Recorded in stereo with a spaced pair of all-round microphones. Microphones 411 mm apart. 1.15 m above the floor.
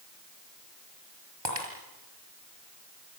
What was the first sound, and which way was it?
Breaking glass, 80° right.